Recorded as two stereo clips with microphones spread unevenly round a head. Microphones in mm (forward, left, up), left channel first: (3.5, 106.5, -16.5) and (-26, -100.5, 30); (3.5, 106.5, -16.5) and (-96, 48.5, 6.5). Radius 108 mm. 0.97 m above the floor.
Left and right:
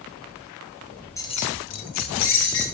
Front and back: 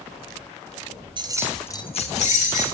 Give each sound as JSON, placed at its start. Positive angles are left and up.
{"t": 1.2, "sound": "keys jangling", "azimuth_deg": 160, "distance_m": 0.9}